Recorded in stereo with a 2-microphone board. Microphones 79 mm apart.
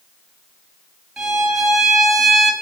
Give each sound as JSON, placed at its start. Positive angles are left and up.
{"t": 1.2, "sound": "a violin", "side_deg": -5, "distance_m": 2.5}